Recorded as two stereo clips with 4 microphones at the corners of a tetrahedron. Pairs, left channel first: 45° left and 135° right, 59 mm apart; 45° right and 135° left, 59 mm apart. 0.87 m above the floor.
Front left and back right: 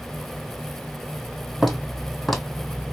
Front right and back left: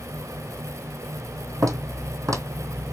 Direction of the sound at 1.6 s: 135° left.